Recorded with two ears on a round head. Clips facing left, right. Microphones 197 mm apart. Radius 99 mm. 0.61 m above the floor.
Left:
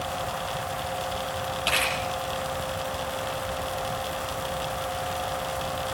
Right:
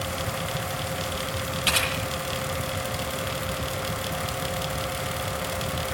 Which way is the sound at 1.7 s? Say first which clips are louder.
Left 1 dB; 25° right (ahead or behind).